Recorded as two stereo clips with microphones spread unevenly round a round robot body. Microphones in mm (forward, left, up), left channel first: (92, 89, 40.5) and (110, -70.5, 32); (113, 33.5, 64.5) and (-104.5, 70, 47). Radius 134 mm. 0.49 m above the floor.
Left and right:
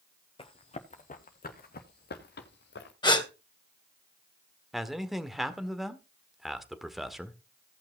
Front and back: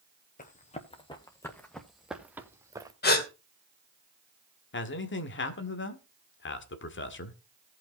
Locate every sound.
0.4 s running footsteps: 40° left, 1.9 m; by 2.9 s 95° left, 2.5 m
3.0 s a gasp: 35° left, 2.5 m
4.7 s a man speaking: 5° left, 1.8 m